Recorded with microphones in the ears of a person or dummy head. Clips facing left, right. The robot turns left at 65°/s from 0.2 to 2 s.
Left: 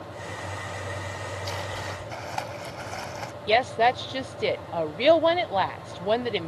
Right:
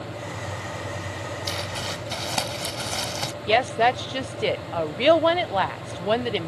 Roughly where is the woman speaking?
Centre.